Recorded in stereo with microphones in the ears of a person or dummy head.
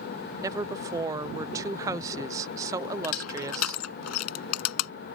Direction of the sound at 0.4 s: 15° right (ahead or behind).